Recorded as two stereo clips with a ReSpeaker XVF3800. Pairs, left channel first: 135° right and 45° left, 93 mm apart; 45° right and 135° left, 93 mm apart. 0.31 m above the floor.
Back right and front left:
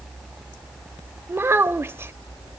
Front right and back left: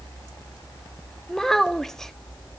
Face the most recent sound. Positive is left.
turn(degrees=35)